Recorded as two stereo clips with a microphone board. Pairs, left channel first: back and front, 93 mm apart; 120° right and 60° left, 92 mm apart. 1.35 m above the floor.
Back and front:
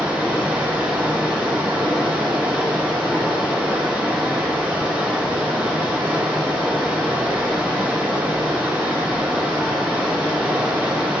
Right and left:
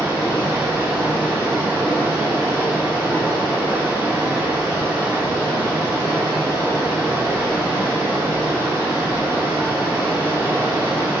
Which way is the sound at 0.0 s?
65° left.